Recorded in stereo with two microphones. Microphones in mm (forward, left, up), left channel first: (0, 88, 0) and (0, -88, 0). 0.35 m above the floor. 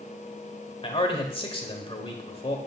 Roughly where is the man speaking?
Left.